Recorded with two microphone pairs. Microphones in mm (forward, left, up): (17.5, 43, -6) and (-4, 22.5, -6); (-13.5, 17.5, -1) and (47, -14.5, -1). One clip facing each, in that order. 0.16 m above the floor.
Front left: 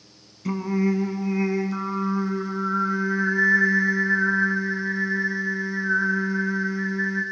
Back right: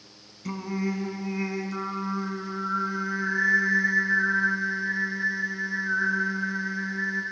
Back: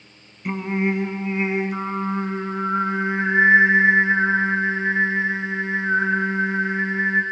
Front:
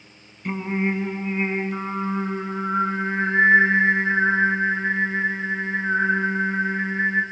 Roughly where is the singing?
Left.